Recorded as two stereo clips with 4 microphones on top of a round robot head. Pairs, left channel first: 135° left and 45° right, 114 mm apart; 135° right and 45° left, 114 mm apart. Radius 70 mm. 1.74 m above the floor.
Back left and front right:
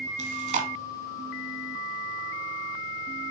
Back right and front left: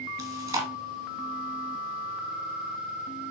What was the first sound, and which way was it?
Chewing, 20° right.